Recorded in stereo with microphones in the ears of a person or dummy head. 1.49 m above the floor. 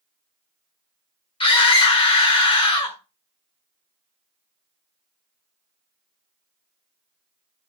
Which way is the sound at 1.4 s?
30° left (ahead or behind).